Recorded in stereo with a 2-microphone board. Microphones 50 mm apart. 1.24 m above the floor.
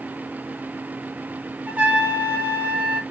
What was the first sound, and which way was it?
A trumpet, 25° right (ahead or behind).